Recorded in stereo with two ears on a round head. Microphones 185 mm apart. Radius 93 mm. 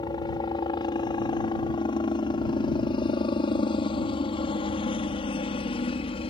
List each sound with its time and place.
0.0 s a helicopter: 20° left (ahead or behind); by 6.3 s 25° left (ahead or behind)